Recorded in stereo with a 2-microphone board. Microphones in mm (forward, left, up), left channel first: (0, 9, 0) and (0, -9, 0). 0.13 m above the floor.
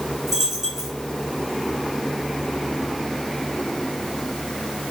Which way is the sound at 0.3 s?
20° right (ahead or behind).